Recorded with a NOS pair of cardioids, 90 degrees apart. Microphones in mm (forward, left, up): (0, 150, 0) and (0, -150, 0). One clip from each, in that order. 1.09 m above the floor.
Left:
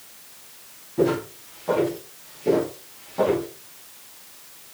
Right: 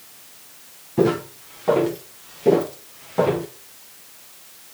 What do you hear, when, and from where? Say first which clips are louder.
1.0 s footsteps: right 2 dB; 65° right, 7 m; by 3.5 s 50° right, 5.5 m